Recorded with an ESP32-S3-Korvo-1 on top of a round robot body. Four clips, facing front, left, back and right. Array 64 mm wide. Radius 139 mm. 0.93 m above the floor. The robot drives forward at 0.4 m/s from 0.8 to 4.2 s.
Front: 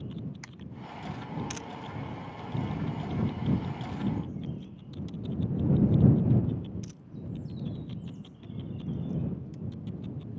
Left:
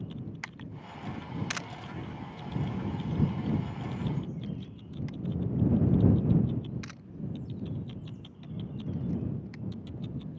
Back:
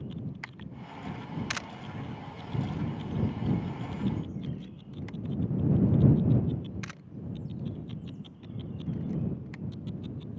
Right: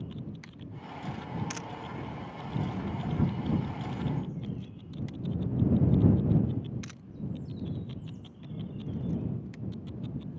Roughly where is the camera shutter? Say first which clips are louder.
Left 2 dB, back 1 dB; behind left.